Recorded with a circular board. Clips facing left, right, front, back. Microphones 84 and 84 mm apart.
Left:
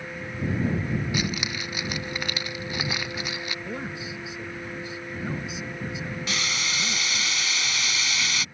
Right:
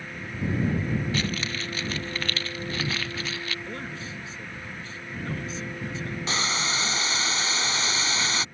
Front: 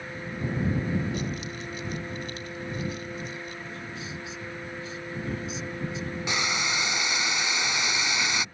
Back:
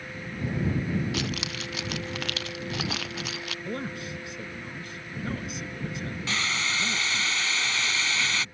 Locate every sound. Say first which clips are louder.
1.1 s keys jangling: even, back 1 dB; 165° left
3.6 s a man speaking: left 2 dB, back 4 dB; 165° left
6.3 s boiling: right 4 dB, front 1 dB; 60° right